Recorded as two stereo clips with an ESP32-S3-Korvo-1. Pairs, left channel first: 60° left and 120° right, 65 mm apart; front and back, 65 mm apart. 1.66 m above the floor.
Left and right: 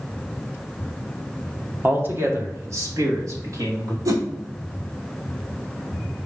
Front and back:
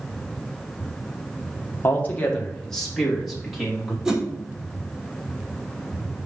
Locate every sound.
1.8 s a man speaking: 60° right, 1.4 m; by 4.0 s 95° right, 3 m
4.0 s a whoosh: 100° right, 1.2 m